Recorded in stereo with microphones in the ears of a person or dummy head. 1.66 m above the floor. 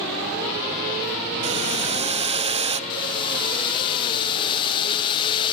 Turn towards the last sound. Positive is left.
turn(degrees=30)  # may be behind; listen again after turning